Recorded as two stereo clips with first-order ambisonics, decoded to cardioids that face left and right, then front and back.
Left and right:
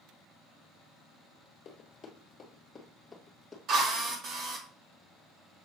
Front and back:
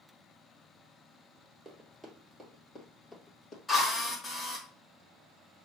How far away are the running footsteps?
About 1.7 m.